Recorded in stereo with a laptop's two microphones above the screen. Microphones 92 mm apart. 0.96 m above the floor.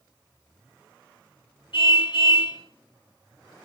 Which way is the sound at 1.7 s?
65° left (ahead or behind).